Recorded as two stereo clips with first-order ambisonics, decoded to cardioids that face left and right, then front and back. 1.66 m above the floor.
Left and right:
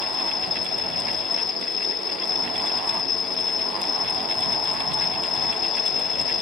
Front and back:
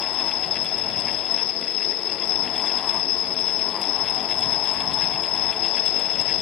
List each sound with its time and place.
0.0 s an insect: 30° left